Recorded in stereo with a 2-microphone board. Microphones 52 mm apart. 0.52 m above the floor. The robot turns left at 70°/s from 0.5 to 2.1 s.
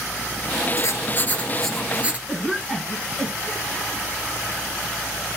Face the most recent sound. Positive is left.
turn(degrees=5)  # may be behind; listen again after turning